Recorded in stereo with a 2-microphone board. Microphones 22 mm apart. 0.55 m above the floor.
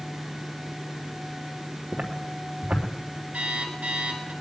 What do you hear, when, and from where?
1.9 s footsteps: 60° right (ahead or behind), 3 m
3.3 s an alarm clock: 70° right (ahead or behind), 3 m